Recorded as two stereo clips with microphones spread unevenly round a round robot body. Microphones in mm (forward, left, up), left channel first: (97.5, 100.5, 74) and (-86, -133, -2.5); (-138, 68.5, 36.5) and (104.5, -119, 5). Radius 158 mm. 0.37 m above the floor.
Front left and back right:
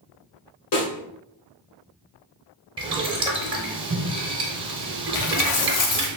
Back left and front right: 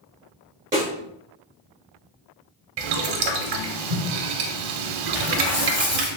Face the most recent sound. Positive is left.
turn(degrees=50)